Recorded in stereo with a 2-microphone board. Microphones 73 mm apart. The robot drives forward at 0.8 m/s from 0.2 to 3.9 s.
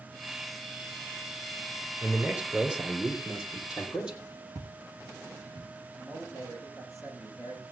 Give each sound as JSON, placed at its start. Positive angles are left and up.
{"t": 2.0, "sound": "a man speaking", "side_deg": -20, "distance_m": 3.0}
{"t": 4.5, "sound": "footsteps", "side_deg": -45, "distance_m": 3.0}
{"t": 6.0, "sound": "a man speaking", "side_deg": -45, "distance_m": 7.5}